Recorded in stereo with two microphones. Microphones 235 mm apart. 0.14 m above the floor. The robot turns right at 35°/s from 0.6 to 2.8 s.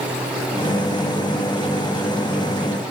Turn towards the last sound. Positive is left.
No sound to turn to.